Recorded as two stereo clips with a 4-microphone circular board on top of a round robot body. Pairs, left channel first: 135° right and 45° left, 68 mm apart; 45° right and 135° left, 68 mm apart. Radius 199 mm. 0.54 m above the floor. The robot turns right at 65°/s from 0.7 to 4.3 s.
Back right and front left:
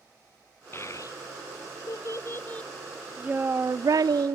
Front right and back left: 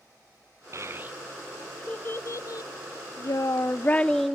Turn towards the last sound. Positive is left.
turn(degrees=45)